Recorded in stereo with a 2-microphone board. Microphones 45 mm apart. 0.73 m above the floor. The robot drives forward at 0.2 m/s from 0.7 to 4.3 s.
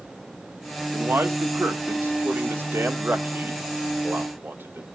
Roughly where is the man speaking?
Right.